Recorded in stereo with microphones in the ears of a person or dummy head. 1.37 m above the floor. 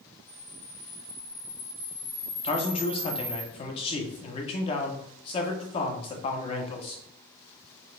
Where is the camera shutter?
20° right (ahead or behind), 0.8 m.